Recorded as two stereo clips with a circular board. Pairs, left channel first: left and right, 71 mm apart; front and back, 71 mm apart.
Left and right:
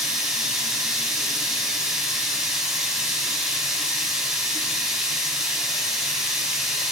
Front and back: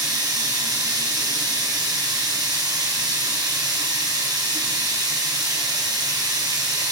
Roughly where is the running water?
Behind.